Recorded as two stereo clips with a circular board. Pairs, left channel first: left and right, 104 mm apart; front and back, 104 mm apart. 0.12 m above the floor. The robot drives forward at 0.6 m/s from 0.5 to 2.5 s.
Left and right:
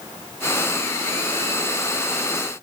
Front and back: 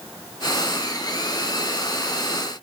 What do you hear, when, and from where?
Only background noise.